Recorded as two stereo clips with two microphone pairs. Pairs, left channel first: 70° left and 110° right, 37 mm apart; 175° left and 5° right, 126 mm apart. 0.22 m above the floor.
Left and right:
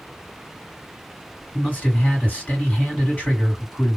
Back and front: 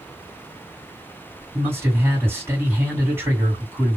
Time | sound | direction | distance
1.5 | a man speaking | 55° left | 2 m